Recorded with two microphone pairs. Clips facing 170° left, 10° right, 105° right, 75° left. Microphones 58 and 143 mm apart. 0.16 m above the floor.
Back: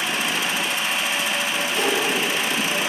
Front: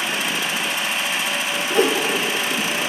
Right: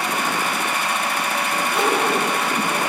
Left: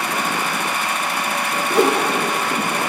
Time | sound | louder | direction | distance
1.7 | a whoosh | front 6 dB, left 6 dB | 40° left | 0.6 m